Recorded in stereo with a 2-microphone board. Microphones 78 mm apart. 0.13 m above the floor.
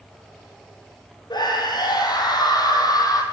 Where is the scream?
60° left (ahead or behind), 5.5 m; by 3.2 s 50° left (ahead or behind), 5 m.